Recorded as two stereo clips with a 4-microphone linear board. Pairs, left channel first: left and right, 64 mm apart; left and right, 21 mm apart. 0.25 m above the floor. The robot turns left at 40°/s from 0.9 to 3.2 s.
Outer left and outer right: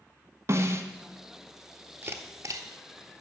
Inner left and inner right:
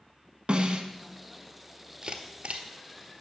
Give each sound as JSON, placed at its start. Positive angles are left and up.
{"t": 0.5, "sound": "a snare drum", "side_deg": -50, "distance_m": 0.8}
{"t": 2.0, "sound": "a camera shutter", "side_deg": -35, "distance_m": 0.7}